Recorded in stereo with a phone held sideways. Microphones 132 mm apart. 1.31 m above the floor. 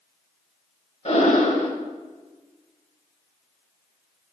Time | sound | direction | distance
1.1 | breathing | 60° left (ahead or behind) | 1.4 m